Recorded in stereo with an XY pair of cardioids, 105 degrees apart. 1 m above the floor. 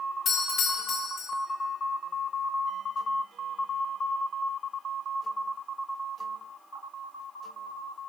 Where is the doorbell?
55° left, 1.7 m.